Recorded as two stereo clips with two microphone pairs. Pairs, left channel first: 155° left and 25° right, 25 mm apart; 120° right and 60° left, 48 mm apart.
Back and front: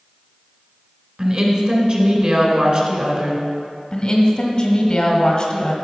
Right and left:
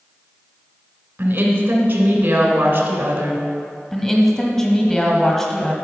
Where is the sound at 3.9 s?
165° left, 1.7 m.